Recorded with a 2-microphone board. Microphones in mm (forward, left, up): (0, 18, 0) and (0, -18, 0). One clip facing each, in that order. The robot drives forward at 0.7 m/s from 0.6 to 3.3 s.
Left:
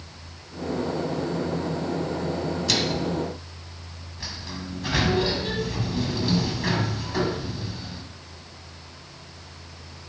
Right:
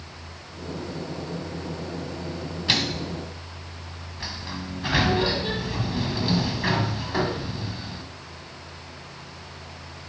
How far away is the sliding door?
About 1.4 m.